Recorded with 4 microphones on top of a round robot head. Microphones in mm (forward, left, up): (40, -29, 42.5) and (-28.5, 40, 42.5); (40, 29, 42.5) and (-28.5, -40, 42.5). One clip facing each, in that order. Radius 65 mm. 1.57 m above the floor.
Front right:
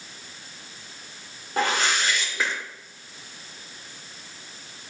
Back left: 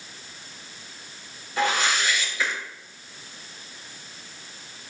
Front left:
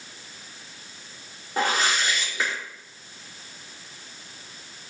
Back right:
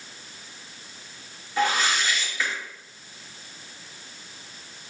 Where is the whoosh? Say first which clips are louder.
Even, even; 5° right, 3 m.